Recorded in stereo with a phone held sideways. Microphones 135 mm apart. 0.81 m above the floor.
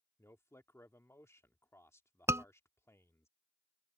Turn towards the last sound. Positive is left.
turn(degrees=-20)  # may be behind; listen again after turning